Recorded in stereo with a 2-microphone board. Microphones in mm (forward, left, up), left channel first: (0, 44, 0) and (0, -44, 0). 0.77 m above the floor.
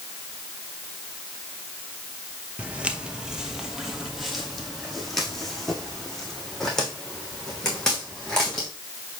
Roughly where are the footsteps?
Centre.